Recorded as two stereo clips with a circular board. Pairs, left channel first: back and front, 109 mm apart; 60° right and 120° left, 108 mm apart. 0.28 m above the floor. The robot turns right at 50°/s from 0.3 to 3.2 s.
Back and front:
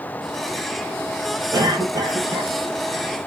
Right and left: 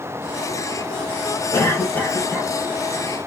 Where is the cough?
15° right, 1.6 m; by 2.5 s 35° left, 1.6 m.